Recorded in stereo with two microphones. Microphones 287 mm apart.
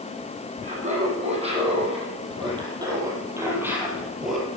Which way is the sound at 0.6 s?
25° right (ahead or behind).